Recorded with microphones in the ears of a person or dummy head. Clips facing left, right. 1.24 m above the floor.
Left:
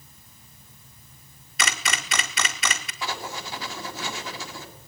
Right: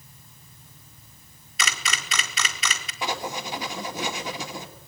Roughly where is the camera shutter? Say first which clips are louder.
Left 2 dB; left.